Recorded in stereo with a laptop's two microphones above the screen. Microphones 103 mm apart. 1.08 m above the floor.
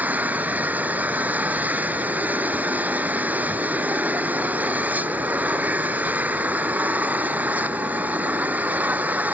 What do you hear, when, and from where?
0.0 s an engine running: 15° right (ahead or behind)